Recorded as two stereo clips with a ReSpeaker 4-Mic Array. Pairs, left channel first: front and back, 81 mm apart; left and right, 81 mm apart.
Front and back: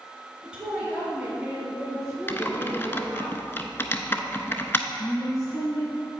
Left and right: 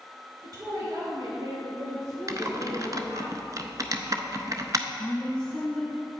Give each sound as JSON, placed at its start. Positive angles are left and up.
{"t": 0.4, "sound": "a woman speaking", "azimuth_deg": -100, "distance_m": 1.9}
{"t": 2.3, "sound": "typing on a keyboard", "azimuth_deg": -55, "distance_m": 0.6}
{"t": 5.0, "sound": "a woman speaking", "azimuth_deg": 15, "distance_m": 1.5}